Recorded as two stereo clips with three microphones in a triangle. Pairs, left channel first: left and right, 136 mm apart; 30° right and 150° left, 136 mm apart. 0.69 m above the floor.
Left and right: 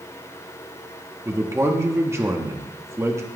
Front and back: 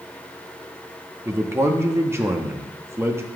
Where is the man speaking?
150° right, 0.7 m.